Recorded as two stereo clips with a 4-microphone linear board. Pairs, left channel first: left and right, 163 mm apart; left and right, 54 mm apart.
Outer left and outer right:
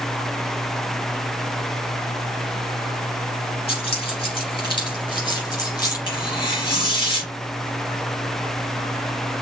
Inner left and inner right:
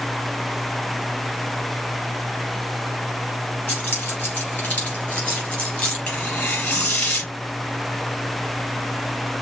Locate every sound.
3.7 s keys jangling: 35° left (ahead or behind), 3.5 m; by 6.0 s 25° left (ahead or behind), 2.5 m
6.1 s tearing paper: 30° left (ahead or behind), 3 m